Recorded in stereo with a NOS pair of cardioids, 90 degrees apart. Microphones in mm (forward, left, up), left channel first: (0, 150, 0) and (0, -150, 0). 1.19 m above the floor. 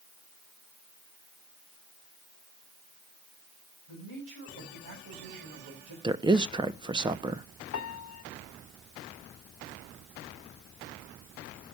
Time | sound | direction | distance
3.9 | a man speaking | 65° right | 6 m
6.0 | a woman speaking | 15° right | 0.8 m
7.7 | a piano | 55° left | 1.2 m